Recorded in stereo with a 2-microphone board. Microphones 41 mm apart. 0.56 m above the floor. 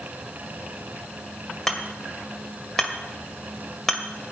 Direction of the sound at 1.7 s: 10° left (ahead or behind).